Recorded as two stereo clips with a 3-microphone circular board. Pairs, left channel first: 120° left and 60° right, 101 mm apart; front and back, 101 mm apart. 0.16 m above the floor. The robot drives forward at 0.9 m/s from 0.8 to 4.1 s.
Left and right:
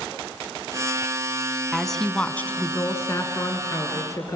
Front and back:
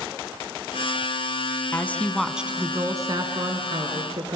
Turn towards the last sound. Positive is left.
turn(degrees=170)